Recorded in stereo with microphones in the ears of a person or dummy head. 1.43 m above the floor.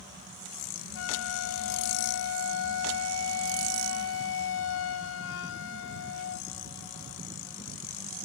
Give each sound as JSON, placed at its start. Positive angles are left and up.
{"t": 0.9, "sound": "a flute", "side_deg": 65}